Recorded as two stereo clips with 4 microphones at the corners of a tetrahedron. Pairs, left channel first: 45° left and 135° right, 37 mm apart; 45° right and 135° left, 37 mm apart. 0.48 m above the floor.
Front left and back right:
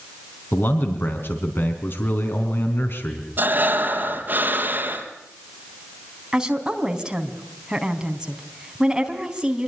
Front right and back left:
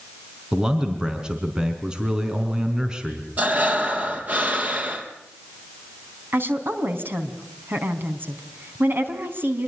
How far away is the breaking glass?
No breaking glass in this recording.